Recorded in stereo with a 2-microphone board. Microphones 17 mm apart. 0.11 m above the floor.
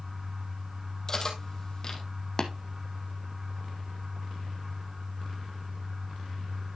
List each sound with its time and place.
1.1 s cutlery clinking: 30° left (ahead or behind), 1.9 m
2.4 s tapping: 35° left (ahead or behind), 1.0 m